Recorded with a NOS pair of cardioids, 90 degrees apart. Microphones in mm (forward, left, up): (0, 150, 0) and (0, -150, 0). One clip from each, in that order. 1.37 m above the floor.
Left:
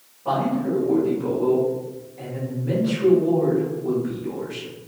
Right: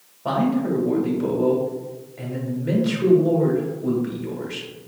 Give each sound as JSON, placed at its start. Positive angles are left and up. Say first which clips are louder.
{"t": 0.2, "sound": "a man speaking", "louder": "even", "azimuth_deg": -60, "distance_m": 1.9}